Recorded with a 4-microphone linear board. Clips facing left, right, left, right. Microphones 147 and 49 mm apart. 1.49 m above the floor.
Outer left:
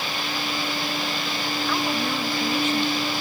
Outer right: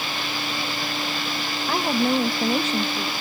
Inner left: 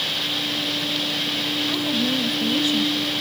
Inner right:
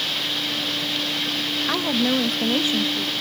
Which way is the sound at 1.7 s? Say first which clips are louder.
Outer right 6 dB, inner right 4 dB; 45° right (ahead or behind).